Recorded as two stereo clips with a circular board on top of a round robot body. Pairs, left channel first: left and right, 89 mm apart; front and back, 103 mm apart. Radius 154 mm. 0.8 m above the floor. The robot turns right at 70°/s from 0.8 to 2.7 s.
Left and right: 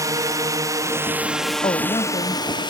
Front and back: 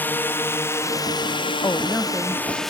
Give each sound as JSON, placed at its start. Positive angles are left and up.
{"t": 0.0, "sound": "a drone", "azimuth_deg": -65}
{"t": 1.6, "sound": "a woman speaking", "azimuth_deg": 65}